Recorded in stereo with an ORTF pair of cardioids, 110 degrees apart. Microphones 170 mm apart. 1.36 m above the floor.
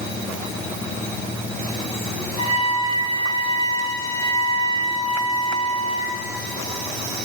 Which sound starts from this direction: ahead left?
A trumpet, at 2.4 s.